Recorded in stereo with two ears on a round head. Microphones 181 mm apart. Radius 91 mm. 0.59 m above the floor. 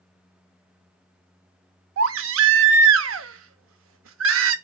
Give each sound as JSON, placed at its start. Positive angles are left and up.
{"t": 2.0, "sound": "a baby crying", "side_deg": -75, "distance_m": 0.6}